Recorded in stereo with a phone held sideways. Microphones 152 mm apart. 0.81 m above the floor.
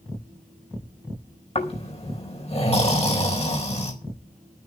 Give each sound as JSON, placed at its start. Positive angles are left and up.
{"t": 1.6, "sound": "snoring", "side_deg": 40, "distance_m": 4.5}